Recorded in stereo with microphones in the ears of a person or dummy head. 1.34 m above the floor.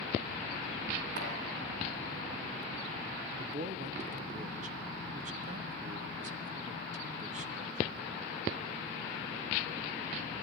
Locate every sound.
1.2 s chopping: 65° right (ahead or behind), 2.5 m
3.4 s a man speaking: 35° right (ahead or behind), 0.6 m